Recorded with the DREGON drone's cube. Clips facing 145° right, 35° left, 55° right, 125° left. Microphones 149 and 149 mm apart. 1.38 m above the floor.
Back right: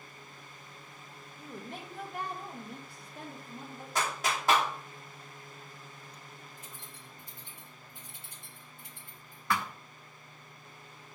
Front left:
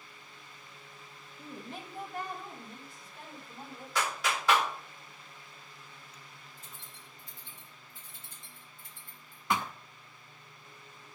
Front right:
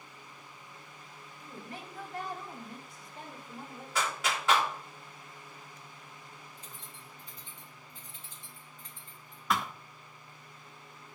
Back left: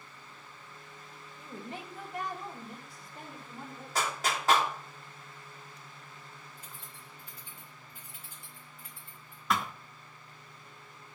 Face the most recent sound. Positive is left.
turn(degrees=35)